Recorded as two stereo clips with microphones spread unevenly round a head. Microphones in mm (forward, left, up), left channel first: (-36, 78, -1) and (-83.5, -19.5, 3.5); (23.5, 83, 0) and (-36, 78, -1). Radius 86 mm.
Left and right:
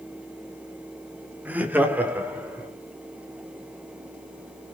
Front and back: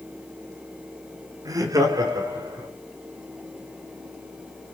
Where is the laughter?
170° left, 2.5 m.